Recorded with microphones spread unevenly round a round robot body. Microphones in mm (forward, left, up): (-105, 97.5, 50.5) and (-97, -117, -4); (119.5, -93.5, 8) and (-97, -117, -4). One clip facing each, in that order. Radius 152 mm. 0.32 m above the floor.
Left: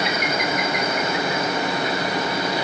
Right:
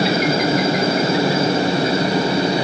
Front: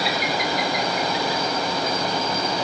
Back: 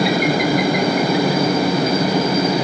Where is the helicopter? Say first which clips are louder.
Right 8 dB, back 9 dB; 140° right; by 2.6 s 150° right.